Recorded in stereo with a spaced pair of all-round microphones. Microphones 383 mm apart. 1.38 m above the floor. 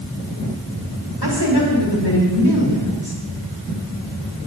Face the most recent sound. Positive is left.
turn(degrees=80)